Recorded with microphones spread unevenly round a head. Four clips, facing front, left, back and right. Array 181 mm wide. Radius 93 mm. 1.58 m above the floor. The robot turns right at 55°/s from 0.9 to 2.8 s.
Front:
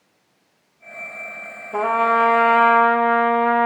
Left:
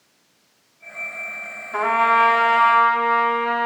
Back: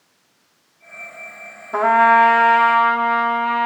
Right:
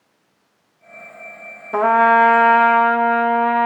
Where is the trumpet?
100° right, 0.7 m; by 3.7 s 40° right, 0.7 m.